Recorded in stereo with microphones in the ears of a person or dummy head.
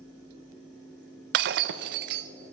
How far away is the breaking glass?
About 0.7 m.